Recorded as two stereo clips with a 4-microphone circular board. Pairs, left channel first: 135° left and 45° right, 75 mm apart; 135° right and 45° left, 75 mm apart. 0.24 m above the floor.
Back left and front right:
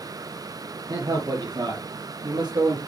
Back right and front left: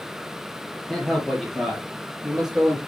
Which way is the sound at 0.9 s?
55° right.